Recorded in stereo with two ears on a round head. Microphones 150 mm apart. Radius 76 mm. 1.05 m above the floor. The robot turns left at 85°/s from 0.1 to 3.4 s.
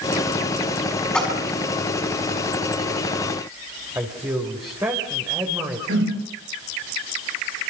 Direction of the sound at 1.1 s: 5° left (ahead or behind).